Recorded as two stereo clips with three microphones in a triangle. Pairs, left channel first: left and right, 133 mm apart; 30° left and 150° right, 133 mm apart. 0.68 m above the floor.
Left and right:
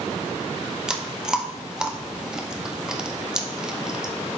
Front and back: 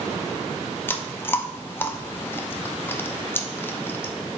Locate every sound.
0.9 s chewing: 15° right, 0.6 m